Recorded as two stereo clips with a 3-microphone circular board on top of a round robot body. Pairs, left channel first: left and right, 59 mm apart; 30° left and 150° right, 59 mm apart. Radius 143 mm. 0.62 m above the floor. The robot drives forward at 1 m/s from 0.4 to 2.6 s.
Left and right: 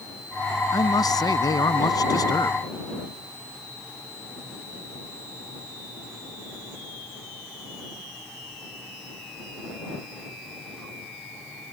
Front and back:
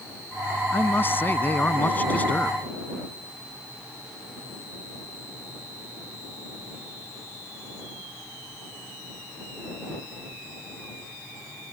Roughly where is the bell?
No bell in this recording.